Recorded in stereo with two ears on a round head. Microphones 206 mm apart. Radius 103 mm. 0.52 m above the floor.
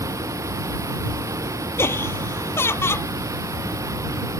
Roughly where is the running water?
Centre.